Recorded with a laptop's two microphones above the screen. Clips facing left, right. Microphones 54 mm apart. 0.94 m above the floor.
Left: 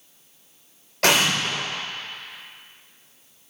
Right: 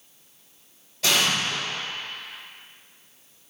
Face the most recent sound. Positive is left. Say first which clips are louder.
# left 3 dB
turn(degrees=70)  # may be behind; listen again after turning